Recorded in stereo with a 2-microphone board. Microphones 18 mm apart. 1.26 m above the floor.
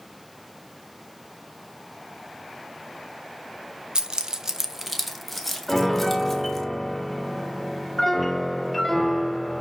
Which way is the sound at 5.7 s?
5° left (ahead or behind).